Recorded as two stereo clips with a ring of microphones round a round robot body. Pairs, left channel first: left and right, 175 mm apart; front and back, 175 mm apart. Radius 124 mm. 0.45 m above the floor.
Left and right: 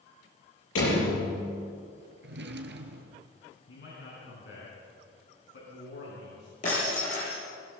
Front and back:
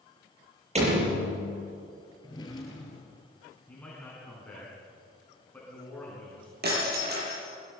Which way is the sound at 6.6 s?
150° left.